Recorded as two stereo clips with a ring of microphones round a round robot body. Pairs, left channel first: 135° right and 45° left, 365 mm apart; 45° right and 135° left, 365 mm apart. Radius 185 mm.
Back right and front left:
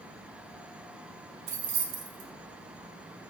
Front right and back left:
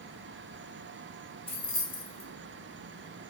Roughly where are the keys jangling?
Ahead.